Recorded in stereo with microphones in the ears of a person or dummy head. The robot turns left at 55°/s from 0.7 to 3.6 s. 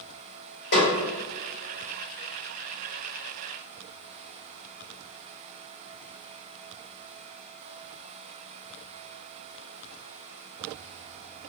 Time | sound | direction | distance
0.7 | a snare drum | 60° left (ahead or behind) | 1.9 m